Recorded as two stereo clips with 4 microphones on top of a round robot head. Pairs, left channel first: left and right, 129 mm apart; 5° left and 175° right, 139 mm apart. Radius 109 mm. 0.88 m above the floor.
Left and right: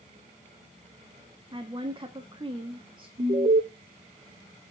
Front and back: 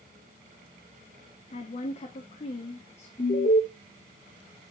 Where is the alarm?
45° right, 2.5 m.